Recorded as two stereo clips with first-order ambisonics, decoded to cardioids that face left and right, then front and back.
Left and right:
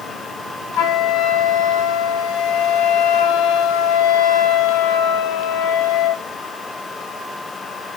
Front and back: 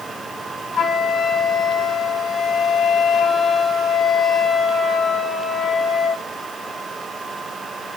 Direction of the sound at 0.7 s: 75° left.